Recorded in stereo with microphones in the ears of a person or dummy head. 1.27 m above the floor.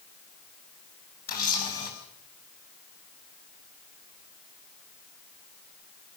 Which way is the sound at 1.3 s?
45° left (ahead or behind).